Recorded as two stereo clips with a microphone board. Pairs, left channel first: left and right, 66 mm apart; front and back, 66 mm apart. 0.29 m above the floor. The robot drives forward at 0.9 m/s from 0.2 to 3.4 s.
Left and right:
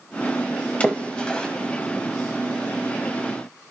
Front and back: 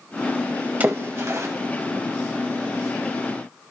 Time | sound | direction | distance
0.8 | a splash | 145° left | 1.1 m